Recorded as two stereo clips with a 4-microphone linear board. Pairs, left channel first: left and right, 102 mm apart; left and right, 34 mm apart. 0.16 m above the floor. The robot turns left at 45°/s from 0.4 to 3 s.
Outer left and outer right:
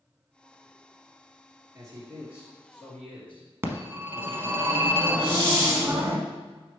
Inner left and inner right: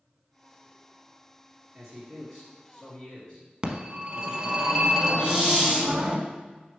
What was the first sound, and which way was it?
A man speaking, 140° right.